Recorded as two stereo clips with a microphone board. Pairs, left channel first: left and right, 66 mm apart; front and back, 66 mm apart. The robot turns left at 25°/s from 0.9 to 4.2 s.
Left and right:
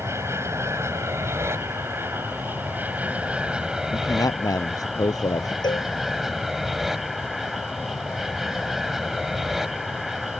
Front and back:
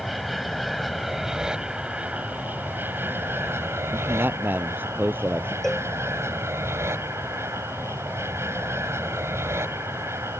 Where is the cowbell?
85° left.